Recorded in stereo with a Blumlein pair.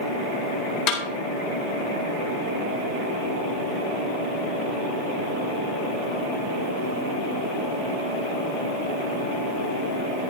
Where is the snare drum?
50° left, 2.5 m.